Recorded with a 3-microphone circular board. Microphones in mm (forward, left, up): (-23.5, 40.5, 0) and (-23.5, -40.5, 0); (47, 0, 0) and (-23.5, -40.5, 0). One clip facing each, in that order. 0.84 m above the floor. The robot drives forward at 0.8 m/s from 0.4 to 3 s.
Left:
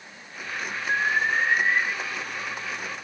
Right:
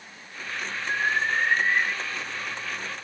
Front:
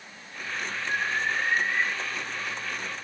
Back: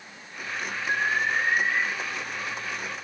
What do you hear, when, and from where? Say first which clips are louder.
0.9 s an alarm: left 2 dB, back 3 dB; 160° left, 9.5 m